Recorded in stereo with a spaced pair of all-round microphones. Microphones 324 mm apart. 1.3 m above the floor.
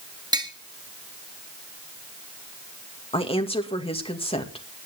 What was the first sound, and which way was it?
Tapping, 10° right (ahead or behind).